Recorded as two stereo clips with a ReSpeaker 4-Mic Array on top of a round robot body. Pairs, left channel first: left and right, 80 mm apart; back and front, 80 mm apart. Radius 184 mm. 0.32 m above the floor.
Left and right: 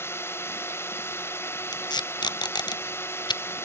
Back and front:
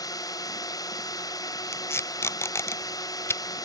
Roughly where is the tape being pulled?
Behind left.